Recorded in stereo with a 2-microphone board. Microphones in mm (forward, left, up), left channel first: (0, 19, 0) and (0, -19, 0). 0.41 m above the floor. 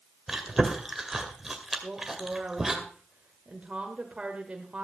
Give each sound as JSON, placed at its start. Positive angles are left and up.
{"t": 0.3, "sound": "chewing", "side_deg": -10, "distance_m": 2.0}
{"t": 1.8, "sound": "a woman speaking", "side_deg": -30, "distance_m": 1.8}